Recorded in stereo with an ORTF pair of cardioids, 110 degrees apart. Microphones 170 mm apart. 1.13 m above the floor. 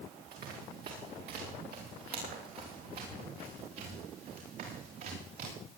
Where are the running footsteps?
60° right, 8 m; by 5.5 s 55° right, 11.5 m.